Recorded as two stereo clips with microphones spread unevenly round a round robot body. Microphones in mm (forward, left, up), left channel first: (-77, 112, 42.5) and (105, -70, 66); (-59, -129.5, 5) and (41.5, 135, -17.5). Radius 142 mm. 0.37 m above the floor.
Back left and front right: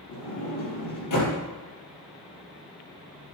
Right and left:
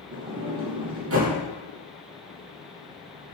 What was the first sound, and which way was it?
A sliding door, 115° left.